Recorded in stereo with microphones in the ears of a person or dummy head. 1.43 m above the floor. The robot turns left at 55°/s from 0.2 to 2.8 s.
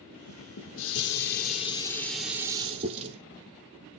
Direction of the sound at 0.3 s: 105° left.